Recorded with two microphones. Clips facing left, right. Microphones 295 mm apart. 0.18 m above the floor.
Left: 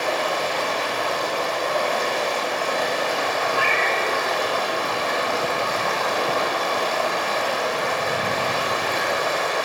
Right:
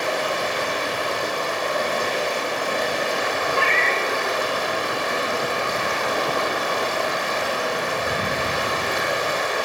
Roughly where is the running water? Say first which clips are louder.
Even; centre.